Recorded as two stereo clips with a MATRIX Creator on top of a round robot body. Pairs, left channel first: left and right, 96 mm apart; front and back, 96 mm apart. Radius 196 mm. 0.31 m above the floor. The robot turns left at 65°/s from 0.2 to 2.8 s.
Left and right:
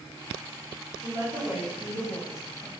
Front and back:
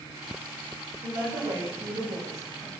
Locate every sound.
1.0 s a woman speaking: 125° right, 1.9 m; by 2.7 s 125° left, 1.9 m